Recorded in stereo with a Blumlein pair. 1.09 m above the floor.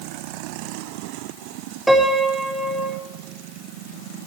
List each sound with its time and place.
1.9 s a piano: 10° right, 4 m